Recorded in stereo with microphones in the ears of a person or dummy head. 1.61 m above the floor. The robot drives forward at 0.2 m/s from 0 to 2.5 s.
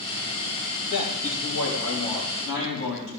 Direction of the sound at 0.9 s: 65° left (ahead or behind).